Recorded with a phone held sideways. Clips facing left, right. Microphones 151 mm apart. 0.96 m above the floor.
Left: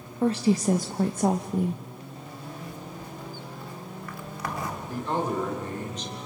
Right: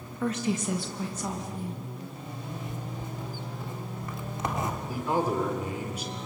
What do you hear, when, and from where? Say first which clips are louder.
0.2 s a woman speaking: left 6 dB; 30° left (ahead or behind), 0.9 m; by 1.8 s 60° left (ahead or behind), 0.7 m
2.3 s a zipper: right 1 dB; 20° right (ahead or behind), 1.7 m
4.9 s a man speaking: even; 10° right (ahead or behind), 3 m